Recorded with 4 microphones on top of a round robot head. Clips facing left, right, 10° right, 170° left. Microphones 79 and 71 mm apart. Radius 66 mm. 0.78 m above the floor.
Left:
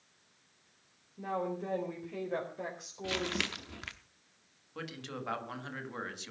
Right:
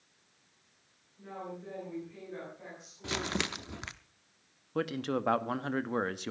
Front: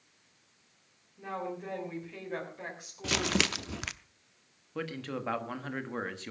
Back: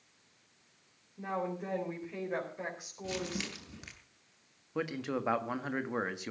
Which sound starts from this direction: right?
A man speaking, at 4.8 s.